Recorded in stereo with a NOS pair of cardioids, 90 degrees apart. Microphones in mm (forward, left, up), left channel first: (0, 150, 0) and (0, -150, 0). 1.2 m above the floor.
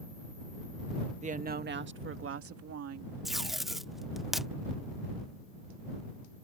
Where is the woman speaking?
25° right; by 3.1 s 60° right.